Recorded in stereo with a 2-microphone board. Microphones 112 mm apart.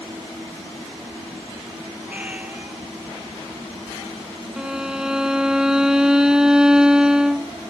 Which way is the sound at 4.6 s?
5° right (ahead or behind).